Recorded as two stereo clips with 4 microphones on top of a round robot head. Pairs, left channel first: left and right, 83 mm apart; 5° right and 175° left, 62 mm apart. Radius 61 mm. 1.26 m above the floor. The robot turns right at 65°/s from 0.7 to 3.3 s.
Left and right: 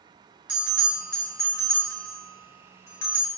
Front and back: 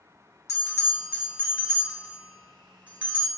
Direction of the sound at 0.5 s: 15° right.